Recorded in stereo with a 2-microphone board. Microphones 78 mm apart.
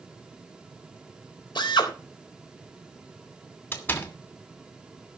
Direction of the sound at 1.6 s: 75° left (ahead or behind).